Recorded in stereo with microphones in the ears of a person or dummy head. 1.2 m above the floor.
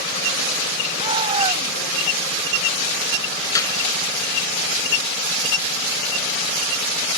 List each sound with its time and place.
0.9 s a shout: 35° right (ahead or behind)
3.5 s a clap: 20° left (ahead or behind)